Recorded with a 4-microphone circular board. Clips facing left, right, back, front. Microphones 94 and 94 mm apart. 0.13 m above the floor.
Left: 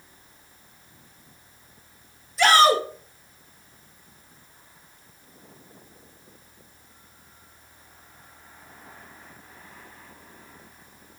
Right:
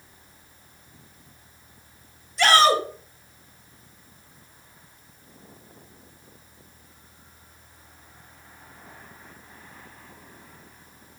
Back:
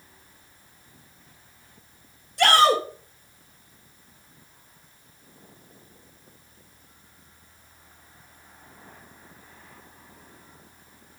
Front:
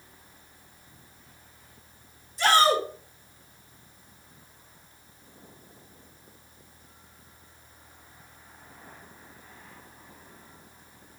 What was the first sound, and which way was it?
A shout, straight behind.